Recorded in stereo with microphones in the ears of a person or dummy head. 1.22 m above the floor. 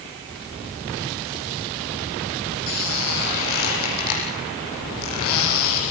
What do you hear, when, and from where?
2.7 s a squeak: 50° left (ahead or behind), 9.5 m